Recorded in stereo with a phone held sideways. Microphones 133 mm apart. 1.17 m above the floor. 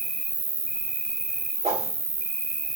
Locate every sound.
0.0 s an insect: centre (ahead or behind), 1.0 m
1.6 s a whoosh: 55° right (ahead or behind), 1.8 m